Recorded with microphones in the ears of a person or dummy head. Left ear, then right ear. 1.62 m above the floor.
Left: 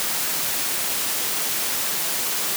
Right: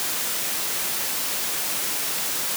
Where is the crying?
I don't hear crying.